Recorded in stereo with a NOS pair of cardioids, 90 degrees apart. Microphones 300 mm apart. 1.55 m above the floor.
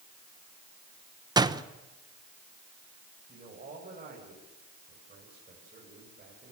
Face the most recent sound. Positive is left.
turn(degrees=-30)